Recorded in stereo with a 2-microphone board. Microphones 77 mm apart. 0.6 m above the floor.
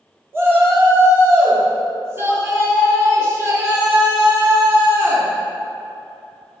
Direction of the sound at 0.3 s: 30° right (ahead or behind).